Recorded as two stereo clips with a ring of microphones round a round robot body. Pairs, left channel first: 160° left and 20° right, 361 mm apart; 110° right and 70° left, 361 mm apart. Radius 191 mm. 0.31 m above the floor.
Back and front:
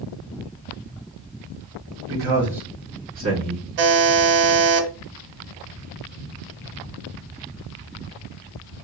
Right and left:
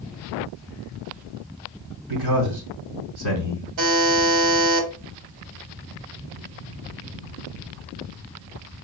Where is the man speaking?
55° left, 1.8 m; by 3.6 s 70° left, 2.5 m.